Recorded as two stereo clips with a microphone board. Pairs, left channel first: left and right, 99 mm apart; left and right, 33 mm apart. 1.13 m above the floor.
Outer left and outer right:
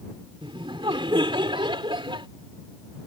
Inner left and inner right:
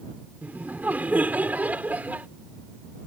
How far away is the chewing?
No chewing in this recording.